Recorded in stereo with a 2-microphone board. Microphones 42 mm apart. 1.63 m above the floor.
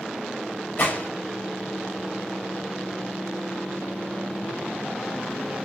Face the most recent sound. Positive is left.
turn(degrees=45)  # may be behind; listen again after turning